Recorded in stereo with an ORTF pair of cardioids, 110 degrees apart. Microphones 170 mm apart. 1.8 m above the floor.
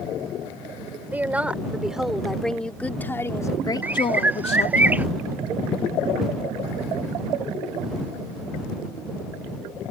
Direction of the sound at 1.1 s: 10° right.